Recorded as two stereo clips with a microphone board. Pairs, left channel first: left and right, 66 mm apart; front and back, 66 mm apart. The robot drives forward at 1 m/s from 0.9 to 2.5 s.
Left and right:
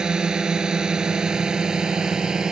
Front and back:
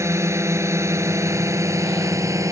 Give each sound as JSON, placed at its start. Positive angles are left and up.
{"t": 0.0, "sound": "a drone", "azimuth_deg": -165}